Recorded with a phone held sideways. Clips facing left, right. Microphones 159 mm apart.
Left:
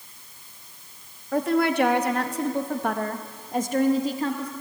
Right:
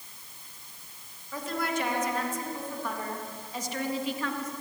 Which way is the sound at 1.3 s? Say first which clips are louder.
Left 10 dB; 60° left (ahead or behind).